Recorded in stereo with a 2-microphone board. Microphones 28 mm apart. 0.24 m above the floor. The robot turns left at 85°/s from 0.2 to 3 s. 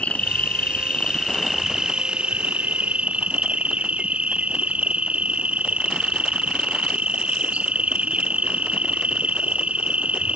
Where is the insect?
115° left; by 10.4 s 125° right.